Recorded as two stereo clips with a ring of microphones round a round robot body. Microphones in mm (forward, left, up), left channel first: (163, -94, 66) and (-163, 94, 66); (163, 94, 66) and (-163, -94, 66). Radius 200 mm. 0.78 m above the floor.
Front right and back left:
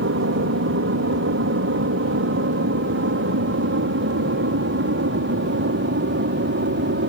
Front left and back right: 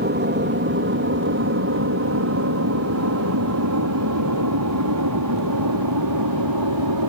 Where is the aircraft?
170° left; by 7.1 s 155° right.